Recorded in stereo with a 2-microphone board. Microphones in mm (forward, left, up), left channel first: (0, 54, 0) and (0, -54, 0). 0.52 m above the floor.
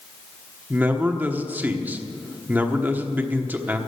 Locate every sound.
0.7 s a man speaking: 15° right (ahead or behind), 1.1 m